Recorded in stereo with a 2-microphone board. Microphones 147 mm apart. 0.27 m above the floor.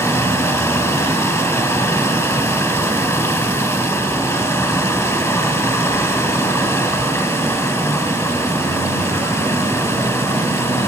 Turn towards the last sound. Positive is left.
turn(degrees=20)  # may be behind; listen again after turning